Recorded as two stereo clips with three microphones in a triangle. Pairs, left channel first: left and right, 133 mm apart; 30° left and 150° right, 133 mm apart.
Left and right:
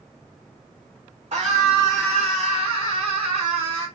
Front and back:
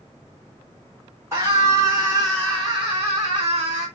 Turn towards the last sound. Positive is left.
turn(degrees=-115)